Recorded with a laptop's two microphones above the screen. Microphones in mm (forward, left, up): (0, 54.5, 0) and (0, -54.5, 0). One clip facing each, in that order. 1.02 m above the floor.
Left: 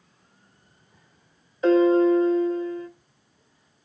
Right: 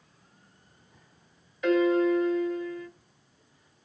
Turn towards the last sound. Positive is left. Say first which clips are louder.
# left 6 dB
turn(degrees=35)  # may be behind; listen again after turning